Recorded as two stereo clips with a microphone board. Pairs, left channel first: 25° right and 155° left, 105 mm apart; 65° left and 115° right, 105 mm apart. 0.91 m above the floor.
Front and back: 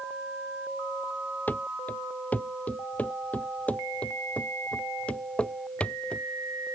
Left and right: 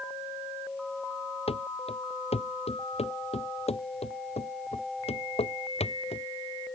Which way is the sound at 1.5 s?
50° left.